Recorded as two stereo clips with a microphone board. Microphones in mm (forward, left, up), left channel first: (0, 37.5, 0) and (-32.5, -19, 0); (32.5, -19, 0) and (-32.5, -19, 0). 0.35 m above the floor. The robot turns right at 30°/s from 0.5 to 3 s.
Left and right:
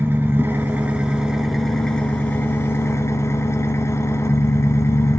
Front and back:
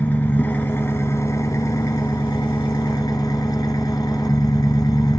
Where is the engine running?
65° right, 1.5 m; by 5.2 s 10° left, 1.5 m.